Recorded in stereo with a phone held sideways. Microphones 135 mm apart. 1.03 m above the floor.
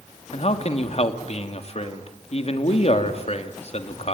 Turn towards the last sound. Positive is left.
turn(degrees=50)  # may be behind; listen again after turning